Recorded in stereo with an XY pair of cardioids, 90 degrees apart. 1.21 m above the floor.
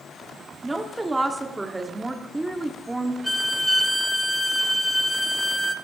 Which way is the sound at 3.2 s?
5° right.